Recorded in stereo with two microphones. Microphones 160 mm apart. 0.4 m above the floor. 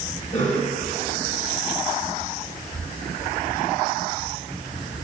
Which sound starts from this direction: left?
A cough, at 0.3 s.